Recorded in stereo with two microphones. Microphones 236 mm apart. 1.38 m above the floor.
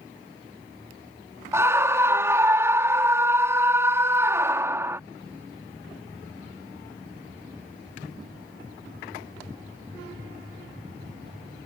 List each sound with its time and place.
1.5 s a scream: 10° right (ahead or behind)